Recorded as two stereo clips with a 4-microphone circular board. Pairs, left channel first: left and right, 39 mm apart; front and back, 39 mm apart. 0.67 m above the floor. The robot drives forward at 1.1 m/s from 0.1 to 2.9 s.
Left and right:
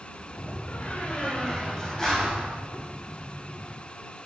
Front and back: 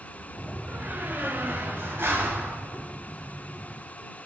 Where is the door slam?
125° left, 1.0 m; by 3.8 s 165° left, 3.5 m.